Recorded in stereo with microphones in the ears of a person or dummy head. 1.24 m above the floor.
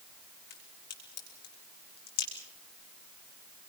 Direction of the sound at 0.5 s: 60° left (ahead or behind).